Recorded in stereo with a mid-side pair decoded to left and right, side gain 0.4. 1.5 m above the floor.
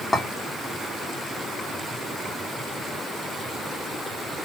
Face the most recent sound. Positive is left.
turn(degrees=25)